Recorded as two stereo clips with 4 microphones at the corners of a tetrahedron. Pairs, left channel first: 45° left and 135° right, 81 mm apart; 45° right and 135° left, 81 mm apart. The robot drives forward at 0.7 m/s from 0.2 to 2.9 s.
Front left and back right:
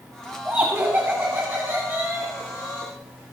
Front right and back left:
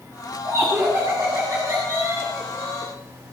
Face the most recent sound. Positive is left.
turn(degrees=175)